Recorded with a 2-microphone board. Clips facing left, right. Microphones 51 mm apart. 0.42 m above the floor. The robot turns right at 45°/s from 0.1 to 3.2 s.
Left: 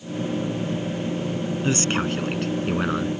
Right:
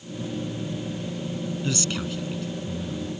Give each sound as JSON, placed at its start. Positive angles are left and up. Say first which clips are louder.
{"t": 1.6, "sound": "a man speaking", "louder": "left 7 dB", "azimuth_deg": 30}